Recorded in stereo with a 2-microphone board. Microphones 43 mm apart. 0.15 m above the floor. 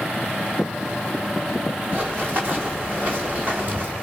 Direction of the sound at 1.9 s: 45° right (ahead or behind).